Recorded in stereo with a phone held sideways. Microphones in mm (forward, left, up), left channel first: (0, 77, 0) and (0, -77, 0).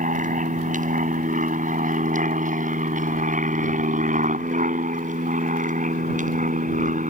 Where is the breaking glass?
No breaking glass in this recording.